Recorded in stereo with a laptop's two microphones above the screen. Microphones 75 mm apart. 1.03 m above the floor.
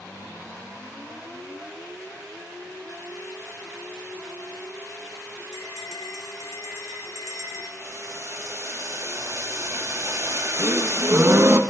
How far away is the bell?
About 1.1 m.